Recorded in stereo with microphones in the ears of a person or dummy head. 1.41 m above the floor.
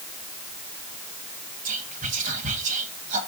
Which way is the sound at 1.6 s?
40° right (ahead or behind).